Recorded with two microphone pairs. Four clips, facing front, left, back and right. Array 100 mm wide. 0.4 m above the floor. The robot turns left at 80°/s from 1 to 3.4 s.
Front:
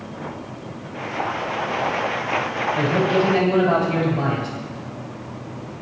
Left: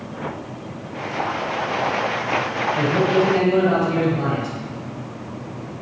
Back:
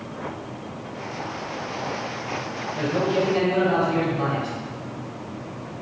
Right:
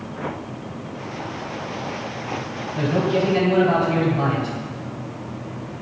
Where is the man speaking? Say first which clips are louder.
Left 1 dB, front 2 dB; 40° left, 3 m; by 4.5 s 15° right, 3 m.